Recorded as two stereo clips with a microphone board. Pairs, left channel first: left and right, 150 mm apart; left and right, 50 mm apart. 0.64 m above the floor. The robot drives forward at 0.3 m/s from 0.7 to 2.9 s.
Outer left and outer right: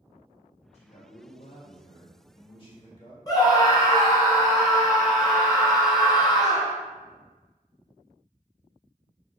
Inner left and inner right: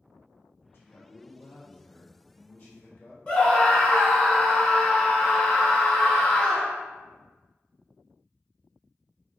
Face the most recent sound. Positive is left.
turn(degrees=25)  # may be behind; listen again after turning